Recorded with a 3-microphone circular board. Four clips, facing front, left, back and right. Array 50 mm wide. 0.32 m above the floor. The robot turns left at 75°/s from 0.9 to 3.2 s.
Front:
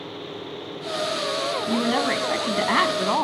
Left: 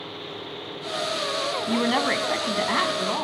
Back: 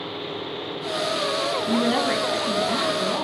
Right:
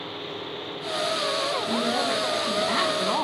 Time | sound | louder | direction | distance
1.7 | a woman speaking | left 5 dB, back 1 dB | 100° left | 2.5 m